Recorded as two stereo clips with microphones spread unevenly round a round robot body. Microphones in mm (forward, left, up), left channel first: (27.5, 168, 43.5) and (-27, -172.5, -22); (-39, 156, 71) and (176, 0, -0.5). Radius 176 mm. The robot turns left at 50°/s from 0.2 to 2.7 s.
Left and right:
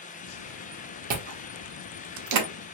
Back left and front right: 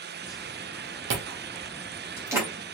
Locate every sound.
1.1 s chewing: 45° right, 0.8 m; by 2.5 s 110° right, 0.8 m